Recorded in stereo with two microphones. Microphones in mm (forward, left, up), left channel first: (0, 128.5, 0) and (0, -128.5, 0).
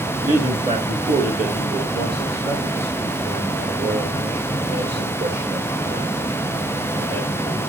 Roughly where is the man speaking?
Centre.